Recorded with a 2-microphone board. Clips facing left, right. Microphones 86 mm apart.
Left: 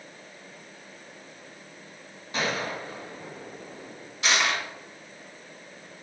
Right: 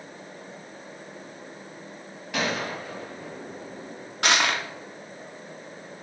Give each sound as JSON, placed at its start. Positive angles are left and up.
{"t": 2.3, "sound": "a gunshot", "side_deg": -80, "distance_m": 2.5}
{"t": 4.2, "sound": "crushing", "side_deg": -60, "distance_m": 1.0}